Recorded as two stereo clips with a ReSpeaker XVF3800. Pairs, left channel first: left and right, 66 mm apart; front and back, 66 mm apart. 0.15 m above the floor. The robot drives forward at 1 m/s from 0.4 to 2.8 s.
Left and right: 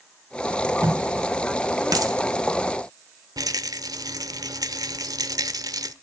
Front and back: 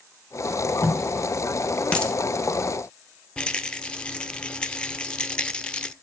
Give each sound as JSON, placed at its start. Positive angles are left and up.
{"t": 0.5, "sound": "tape being pulled", "azimuth_deg": -40, "distance_m": 4.0}
{"t": 1.9, "sound": "a dropped coin", "azimuth_deg": -70, "distance_m": 2.0}
{"t": 3.4, "sound": "a rattle", "azimuth_deg": -75, "distance_m": 0.8}